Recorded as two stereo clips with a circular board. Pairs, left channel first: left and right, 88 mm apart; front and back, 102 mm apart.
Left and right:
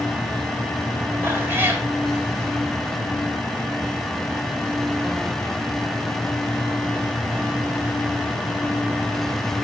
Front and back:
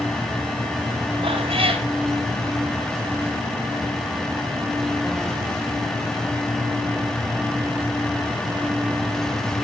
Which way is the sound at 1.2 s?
155° right.